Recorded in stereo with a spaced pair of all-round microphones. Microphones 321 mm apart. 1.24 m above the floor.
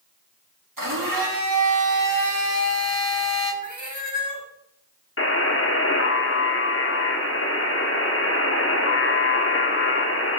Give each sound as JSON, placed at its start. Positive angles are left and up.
{"t": 0.8, "sound": "a blender", "side_deg": -80, "distance_m": 3.0}
{"t": 3.6, "sound": "a cat meowing", "side_deg": -65, "distance_m": 1.3}
{"t": 5.2, "sound": "a buzzer", "side_deg": 40, "distance_m": 1.2}